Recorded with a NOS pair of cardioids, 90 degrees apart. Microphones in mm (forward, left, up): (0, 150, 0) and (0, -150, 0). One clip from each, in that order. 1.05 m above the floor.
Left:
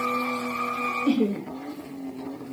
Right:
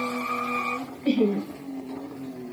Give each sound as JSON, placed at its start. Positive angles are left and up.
{"t": 1.1, "sound": "laughter", "azimuth_deg": -5, "distance_m": 0.9}